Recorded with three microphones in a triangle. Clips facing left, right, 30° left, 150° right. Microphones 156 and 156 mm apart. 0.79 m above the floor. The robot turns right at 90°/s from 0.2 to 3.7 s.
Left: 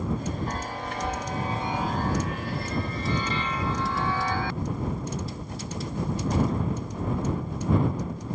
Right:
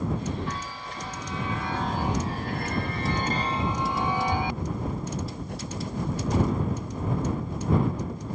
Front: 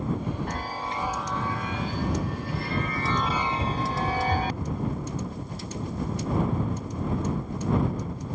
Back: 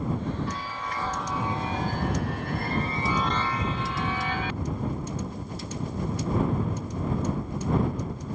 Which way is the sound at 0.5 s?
50° left.